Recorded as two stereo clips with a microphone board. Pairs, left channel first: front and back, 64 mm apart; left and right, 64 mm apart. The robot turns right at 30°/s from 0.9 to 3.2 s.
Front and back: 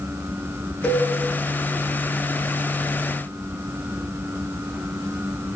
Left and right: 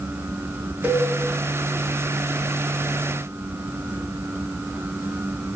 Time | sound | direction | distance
0.8 | a cowbell | 60° right | 1.1 m